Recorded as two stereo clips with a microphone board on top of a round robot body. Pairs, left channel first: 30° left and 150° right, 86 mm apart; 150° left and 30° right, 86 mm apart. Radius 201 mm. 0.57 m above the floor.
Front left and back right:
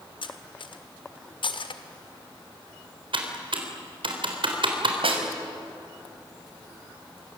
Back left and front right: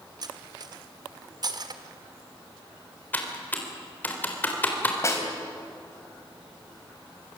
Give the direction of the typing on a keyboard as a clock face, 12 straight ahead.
5 o'clock.